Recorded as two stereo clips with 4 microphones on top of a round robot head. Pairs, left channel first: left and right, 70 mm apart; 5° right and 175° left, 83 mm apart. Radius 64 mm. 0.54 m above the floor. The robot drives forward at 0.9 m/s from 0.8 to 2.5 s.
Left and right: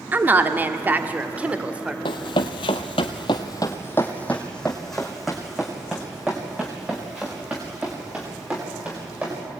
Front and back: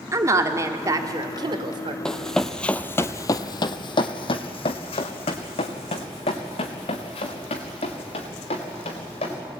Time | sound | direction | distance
0.1 | a woman speaking | 145° right | 1.4 m
2.0 | running footsteps | 80° left | 1.2 m